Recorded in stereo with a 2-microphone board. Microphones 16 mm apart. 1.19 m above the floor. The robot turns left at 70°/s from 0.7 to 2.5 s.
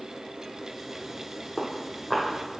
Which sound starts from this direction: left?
Footsteps, at 1.6 s.